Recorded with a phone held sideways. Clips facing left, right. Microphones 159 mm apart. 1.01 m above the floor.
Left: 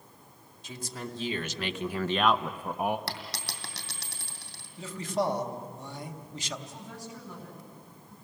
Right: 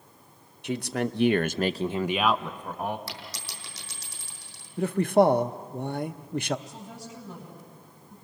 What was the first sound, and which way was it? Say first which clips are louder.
A man speaking: right 11 dB; 65° right (ahead or behind).